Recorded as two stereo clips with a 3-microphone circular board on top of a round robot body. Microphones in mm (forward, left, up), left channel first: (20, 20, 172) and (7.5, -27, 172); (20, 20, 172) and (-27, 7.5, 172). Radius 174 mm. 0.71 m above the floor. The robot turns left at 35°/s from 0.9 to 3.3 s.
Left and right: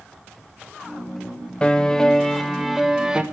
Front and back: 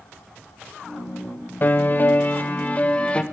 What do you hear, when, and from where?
1.6 s a piano: 15° left, 1.1 m; by 3.2 s 45° right, 1.1 m